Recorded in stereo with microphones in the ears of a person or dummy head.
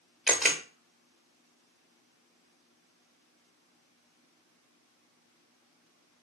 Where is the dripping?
I don't hear dripping.